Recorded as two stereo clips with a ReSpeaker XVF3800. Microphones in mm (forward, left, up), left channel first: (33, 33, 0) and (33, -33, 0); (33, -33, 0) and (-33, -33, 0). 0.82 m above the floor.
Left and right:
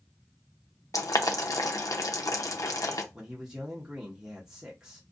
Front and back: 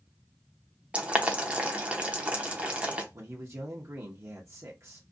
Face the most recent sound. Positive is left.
turn(degrees=-165)